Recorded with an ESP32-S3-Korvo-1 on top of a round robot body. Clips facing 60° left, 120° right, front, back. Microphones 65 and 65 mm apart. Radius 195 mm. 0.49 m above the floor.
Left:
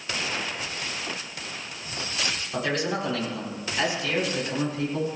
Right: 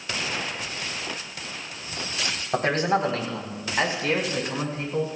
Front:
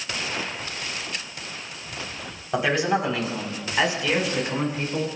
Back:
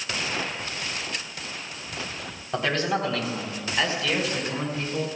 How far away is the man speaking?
About 3.5 m.